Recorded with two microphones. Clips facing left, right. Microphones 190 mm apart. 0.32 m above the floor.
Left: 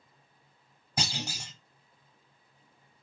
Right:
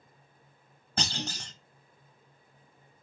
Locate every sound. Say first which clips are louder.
1.0 s a clunk: right 1 dB; 10° left (ahead or behind), 0.7 m